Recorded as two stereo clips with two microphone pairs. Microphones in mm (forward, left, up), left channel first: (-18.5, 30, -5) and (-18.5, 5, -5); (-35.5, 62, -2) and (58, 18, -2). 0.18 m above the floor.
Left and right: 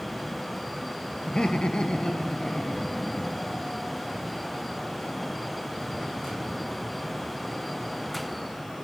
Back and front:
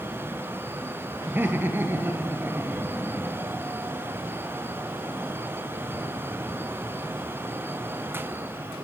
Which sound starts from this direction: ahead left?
Laughter, at 1.3 s.